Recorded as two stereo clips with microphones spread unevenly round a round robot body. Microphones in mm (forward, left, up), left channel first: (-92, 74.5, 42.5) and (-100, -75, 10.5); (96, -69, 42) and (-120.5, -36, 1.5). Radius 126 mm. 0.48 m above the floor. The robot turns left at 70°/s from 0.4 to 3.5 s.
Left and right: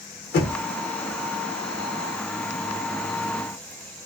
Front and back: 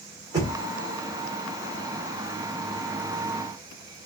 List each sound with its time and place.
0.3 s knocking: 105° left, 0.9 m; by 0.6 s 90° left, 0.9 m